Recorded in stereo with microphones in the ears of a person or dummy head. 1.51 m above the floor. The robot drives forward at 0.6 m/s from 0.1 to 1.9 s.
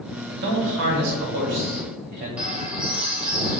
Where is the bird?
10° right (ahead or behind), 1.0 m.